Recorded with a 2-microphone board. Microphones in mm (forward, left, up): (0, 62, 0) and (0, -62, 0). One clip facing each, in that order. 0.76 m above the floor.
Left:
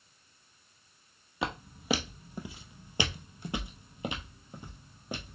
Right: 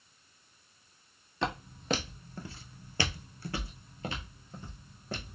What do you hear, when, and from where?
1.4 s footsteps: 5° left (ahead or behind), 1.0 m; by 5.3 s 15° left (ahead or behind), 1.5 m